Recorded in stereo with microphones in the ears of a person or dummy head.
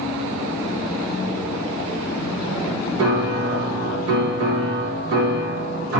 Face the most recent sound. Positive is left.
turn(degrees=-60)  # may be behind; listen again after turning